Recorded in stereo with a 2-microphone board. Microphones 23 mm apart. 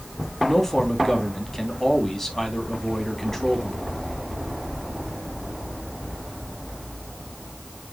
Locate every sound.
0.5 s a man speaking: 15° left (ahead or behind), 3 m